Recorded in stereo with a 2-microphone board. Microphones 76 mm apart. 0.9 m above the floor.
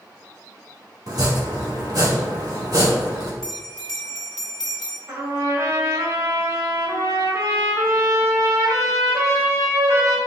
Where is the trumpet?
40° right (ahead or behind), 2.5 m.